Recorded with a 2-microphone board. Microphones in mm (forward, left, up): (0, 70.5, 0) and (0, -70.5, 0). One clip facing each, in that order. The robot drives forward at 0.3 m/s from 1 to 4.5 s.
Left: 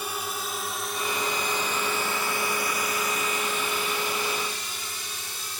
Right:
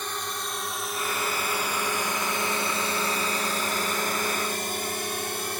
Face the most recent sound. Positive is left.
turn(degrees=-65)  # may be behind; listen again after turning